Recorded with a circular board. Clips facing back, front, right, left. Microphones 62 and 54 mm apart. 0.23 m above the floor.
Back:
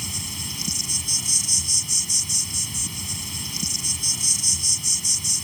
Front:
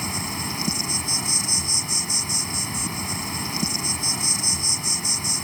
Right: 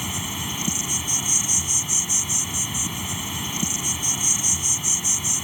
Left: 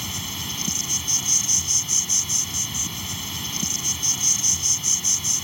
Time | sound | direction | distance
0.0 | an insect | 20° right | ?